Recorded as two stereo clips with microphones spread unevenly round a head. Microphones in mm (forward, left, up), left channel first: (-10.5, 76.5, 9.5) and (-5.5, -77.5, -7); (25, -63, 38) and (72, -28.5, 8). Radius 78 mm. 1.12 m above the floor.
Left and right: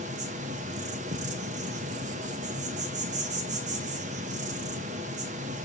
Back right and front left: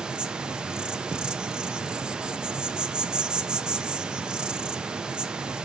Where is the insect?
40° right, 0.8 m.